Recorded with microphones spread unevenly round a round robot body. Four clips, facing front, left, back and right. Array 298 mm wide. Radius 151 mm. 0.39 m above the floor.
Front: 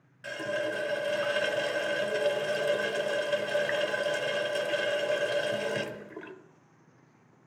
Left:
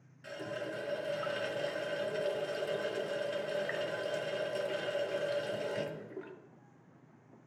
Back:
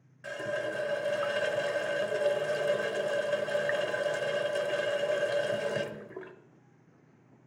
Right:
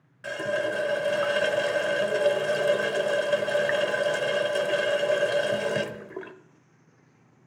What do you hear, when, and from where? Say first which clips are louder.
0.2 s a running tap: right 12 dB, front 2 dB; 85° right, 0.9 m